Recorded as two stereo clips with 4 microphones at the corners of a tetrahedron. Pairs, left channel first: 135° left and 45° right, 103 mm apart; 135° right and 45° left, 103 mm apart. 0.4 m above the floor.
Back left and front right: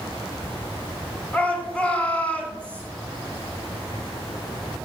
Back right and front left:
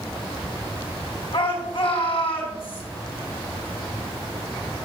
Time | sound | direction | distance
1.3 | a shout | 150° right | 4 m